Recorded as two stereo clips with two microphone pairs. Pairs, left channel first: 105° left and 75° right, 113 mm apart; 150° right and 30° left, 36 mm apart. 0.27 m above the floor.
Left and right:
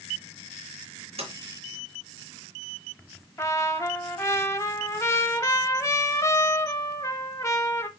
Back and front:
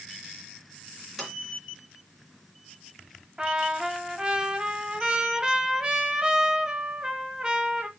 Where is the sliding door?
55° right, 3.5 m.